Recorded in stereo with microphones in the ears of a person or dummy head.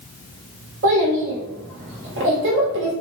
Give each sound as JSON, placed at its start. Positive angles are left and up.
{"t": 0.8, "sound": "a child speaking", "side_deg": -65, "distance_m": 1.2}